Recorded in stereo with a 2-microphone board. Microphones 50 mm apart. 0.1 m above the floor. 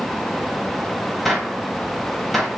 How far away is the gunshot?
About 0.9 m.